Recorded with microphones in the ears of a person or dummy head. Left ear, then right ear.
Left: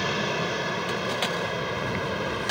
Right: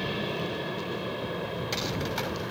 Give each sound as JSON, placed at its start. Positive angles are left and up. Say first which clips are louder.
{"t": 0.0, "sound": "an aircraft", "louder": "left 5 dB", "side_deg": 50}